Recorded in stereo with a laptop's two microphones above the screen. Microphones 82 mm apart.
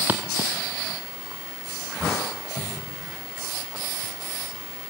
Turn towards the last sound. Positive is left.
turn(degrees=0)  # may be behind; listen again after turning